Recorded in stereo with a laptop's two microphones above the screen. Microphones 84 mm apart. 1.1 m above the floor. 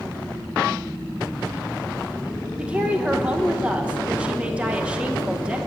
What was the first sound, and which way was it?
A woman speaking, 15° right (ahead or behind).